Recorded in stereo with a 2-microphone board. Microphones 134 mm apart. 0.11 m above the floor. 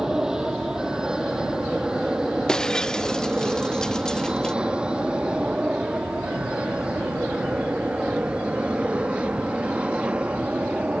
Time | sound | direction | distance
0.0 | an aircraft | 5° right (ahead or behind) | ?
2.5 | breaking glass | 5° left (ahead or behind) | ?